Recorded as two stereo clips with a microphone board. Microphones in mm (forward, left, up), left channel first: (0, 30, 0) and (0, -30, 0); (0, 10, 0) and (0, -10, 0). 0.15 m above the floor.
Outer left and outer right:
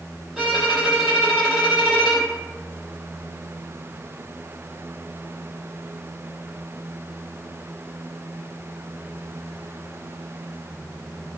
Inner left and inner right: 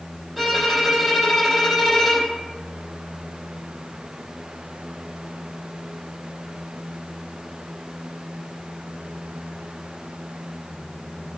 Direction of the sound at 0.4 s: 10° right (ahead or behind).